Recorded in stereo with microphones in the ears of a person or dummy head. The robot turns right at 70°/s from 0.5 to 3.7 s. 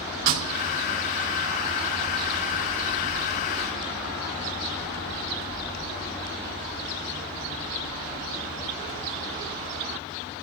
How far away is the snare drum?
About 3.5 m.